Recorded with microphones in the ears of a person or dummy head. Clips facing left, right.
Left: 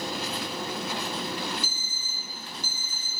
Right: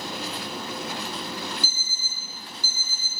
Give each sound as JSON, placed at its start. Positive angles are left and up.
{"t": 1.6, "sound": "an alarm clock", "side_deg": -40, "distance_m": 1.8}